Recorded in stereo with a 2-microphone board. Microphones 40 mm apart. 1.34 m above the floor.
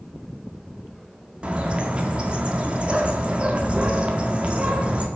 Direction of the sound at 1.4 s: 30° right (ahead or behind).